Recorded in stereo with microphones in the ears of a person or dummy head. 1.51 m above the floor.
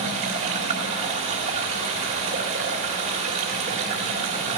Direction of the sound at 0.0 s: 40° right (ahead or behind).